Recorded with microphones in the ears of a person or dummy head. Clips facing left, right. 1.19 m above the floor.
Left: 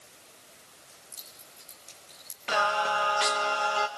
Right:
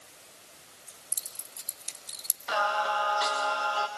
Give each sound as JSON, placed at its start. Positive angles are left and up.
{"t": 0.9, "sound": "keys jangling", "side_deg": -50, "distance_m": 2.0}
{"t": 2.5, "sound": "singing", "side_deg": 35, "distance_m": 1.5}